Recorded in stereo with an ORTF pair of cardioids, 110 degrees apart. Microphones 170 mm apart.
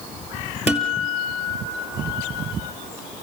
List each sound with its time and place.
0.7 s a guitar: 5° right, 2.5 m